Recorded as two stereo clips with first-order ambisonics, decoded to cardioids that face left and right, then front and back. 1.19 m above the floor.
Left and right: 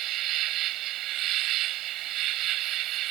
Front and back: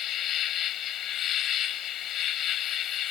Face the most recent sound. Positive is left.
turn(degrees=-50)